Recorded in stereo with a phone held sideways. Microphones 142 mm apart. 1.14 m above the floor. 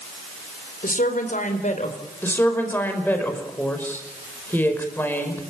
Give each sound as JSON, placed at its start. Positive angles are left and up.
{"t": 0.8, "sound": "a woman speaking", "side_deg": 75, "distance_m": 4.5}
{"t": 2.2, "sound": "a woman speaking", "side_deg": 15, "distance_m": 5.5}